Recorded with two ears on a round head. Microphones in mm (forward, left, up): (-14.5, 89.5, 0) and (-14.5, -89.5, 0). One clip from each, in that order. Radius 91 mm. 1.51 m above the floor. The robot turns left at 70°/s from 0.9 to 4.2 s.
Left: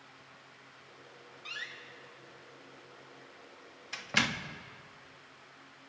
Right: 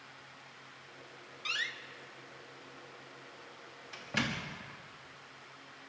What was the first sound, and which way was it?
A door slam, 45° right (ahead or behind).